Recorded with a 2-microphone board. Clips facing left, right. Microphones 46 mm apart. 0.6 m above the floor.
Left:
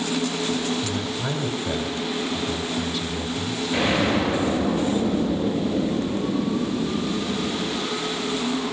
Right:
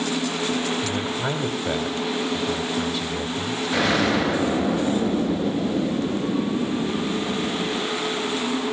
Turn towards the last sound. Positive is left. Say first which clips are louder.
# right 1 dB
turn(degrees=-75)  # may be behind; listen again after turning